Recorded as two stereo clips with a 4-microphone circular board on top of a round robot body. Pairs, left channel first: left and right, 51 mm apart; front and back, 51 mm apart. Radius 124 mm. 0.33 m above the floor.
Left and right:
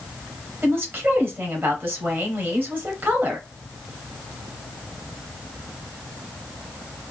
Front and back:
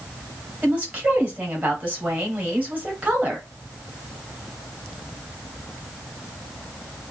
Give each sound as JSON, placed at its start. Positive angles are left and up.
{"t": 0.6, "sound": "a woman speaking", "azimuth_deg": -125, "distance_m": 1.8}